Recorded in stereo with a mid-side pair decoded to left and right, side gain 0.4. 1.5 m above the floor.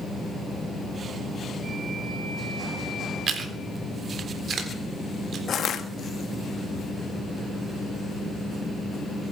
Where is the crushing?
60° left, 1.8 m.